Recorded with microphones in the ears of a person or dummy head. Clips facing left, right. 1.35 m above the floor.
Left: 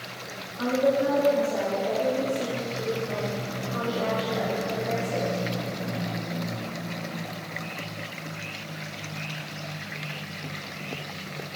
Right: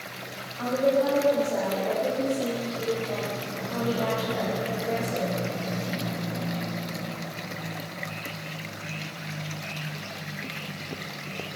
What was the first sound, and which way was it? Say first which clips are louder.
A woman speaking: even; 25° left (ahead or behind).